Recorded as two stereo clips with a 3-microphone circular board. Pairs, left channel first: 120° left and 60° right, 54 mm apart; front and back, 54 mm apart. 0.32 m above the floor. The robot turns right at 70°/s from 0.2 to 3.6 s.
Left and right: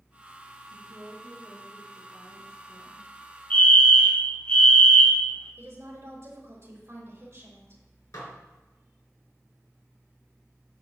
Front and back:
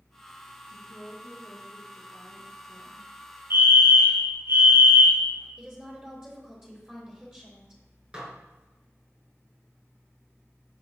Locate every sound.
0.7 s a woman speaking: 65° right, 3.5 m; by 3.0 s 105° left, 3.5 m
3.5 s a fire alarm: 170° left, 3.5 m; by 5.5 s straight behind, 3.5 m
5.6 s a woman speaking: 105° right, 5 m
8.1 s dishes clattering: 110° left, 3 m